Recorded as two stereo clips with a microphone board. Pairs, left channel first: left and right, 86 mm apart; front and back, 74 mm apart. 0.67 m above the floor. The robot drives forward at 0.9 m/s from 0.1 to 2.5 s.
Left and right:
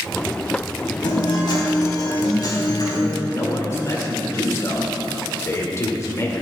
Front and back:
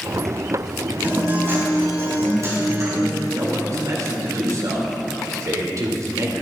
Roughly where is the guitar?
Behind left.